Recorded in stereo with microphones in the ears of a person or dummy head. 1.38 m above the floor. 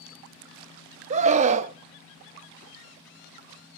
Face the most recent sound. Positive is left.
turn(degrees=-40)  # may be behind; listen again after turning